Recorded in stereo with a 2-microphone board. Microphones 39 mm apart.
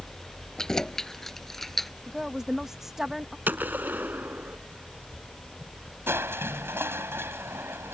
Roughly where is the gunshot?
Right.